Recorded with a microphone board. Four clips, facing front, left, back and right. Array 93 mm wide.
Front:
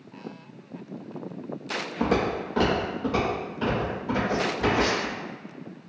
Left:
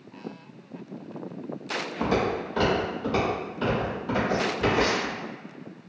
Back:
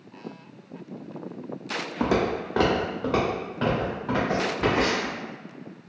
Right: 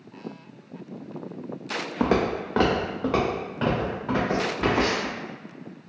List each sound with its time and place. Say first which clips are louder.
2.0 s footsteps: right 3 dB, back 1 dB; 105° right, 0.9 m; by 5.1 s 125° right, 3.5 m